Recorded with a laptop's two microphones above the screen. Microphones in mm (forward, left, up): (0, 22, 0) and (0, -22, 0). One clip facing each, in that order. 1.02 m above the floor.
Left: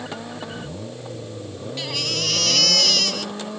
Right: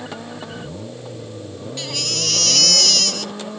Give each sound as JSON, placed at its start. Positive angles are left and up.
{"t": 1.8, "sound": "a baby crying", "side_deg": 10}